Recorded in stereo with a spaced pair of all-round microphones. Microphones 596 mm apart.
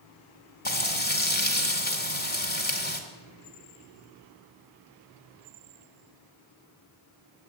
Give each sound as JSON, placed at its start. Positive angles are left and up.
{"t": 0.7, "sound": "frying", "side_deg": 15, "distance_m": 1.8}